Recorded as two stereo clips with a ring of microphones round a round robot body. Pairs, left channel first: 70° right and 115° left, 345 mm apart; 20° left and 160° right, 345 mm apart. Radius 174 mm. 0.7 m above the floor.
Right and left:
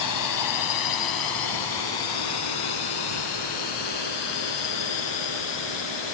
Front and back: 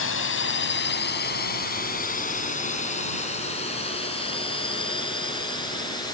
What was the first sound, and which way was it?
A drone, 35° right.